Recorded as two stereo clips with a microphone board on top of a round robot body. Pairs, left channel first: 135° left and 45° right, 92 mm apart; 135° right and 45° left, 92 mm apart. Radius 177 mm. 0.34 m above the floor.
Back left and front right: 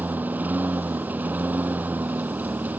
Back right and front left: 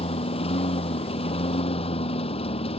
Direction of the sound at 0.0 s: 120° right.